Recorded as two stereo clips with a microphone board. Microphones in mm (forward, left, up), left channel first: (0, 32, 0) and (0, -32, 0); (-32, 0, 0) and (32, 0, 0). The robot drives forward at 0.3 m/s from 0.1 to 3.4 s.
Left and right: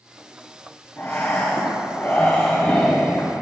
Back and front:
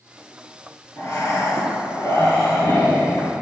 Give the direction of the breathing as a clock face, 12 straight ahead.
7 o'clock.